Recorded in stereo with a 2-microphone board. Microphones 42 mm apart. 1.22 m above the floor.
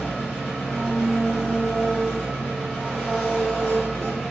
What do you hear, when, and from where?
0.0 s an engine running: 5° left (ahead or behind), 1.8 m